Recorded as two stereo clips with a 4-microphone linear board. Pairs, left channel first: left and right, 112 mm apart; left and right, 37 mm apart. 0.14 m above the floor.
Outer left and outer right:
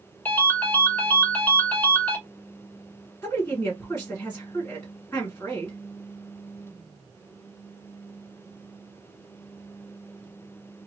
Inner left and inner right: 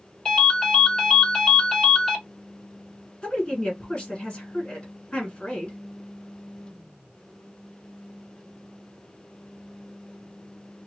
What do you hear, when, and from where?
0.2 s a ringtone: 15° left (ahead or behind), 1.2 m
3.2 s a woman speaking: 20° left (ahead or behind), 1.9 m